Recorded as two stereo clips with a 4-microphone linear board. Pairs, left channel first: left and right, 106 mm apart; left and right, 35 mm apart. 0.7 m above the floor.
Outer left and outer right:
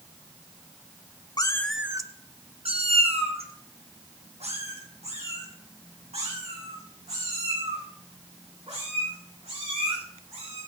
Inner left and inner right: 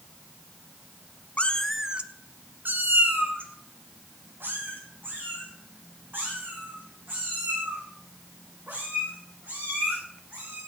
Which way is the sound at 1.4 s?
40° left (ahead or behind).